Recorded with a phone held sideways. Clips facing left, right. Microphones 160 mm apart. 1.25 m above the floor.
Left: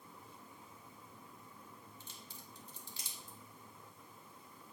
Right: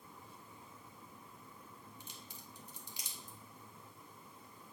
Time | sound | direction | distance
2.0 | a crack | 15° right (ahead or behind) | 1.4 m